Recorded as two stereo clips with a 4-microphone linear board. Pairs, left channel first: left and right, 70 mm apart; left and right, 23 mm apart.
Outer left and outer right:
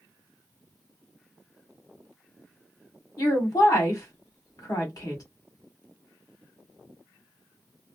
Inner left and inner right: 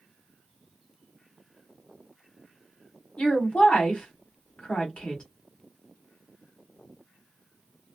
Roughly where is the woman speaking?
Left.